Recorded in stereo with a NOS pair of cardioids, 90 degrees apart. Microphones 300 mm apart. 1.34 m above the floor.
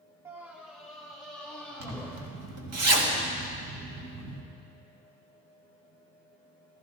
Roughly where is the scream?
Ahead.